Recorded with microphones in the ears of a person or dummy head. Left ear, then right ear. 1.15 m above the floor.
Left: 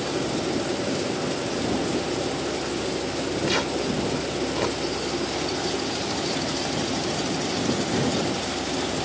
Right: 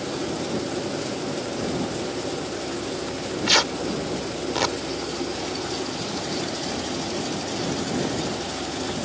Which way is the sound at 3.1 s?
35° right (ahead or behind).